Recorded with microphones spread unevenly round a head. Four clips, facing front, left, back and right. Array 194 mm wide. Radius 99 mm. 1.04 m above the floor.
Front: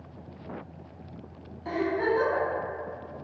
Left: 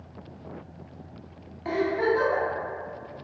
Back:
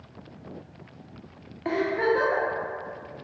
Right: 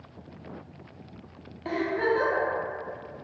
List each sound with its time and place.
1.6 s a giggle: 170° right, 0.7 m